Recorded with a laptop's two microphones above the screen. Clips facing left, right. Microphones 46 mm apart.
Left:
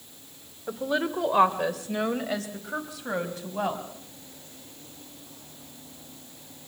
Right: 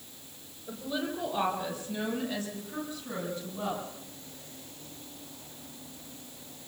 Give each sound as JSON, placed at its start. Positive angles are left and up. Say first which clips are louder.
{"t": 0.7, "sound": "a woman speaking", "louder": "left 7 dB", "side_deg": 85, "distance_m": 2.5}